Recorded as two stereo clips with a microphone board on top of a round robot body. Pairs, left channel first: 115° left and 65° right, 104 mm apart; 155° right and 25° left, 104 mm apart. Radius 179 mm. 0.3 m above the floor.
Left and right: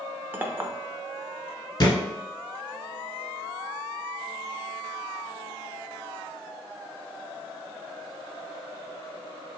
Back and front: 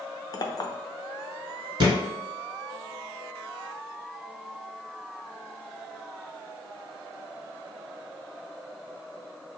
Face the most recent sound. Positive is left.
turn(degrees=65)